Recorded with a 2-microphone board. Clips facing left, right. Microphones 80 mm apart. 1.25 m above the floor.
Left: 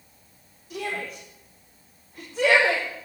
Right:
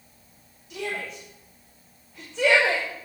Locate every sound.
0.7 s a shout: 45° left (ahead or behind), 4.5 m